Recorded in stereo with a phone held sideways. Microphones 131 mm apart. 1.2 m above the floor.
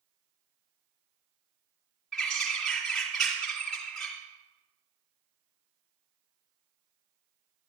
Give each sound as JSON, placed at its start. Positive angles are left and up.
{"t": 2.1, "sound": "a bird", "side_deg": 0, "distance_m": 2.5}